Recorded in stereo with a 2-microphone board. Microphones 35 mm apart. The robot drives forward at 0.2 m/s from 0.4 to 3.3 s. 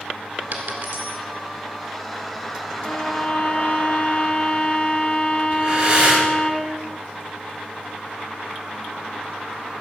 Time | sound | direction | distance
0.5 | a dropped coin | 70° right (ahead or behind) | 1.9 m
2.8 | a violin | 45° left (ahead or behind) | 2 m
5.5 | breathing | 40° right (ahead or behind) | 2.5 m